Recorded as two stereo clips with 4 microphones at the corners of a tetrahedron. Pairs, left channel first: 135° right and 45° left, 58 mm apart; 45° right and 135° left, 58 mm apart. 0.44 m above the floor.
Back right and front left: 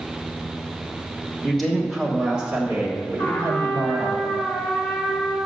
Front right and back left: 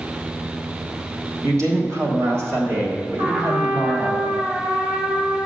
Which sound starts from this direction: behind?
A trumpet, at 3.2 s.